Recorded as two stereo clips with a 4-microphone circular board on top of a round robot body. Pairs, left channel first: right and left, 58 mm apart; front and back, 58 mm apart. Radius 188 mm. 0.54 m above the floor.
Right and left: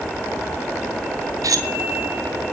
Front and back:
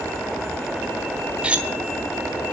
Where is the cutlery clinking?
110° left, 1.2 m.